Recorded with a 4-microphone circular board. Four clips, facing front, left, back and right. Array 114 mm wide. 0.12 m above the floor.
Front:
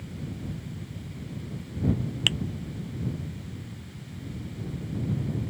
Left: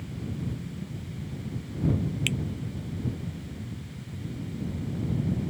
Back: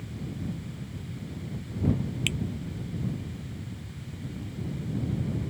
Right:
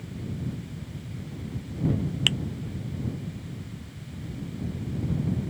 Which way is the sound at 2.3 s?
45° right.